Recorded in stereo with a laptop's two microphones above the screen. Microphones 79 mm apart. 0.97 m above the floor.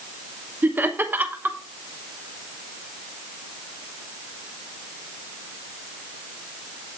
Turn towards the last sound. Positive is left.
turn(degrees=-25)  # may be behind; listen again after turning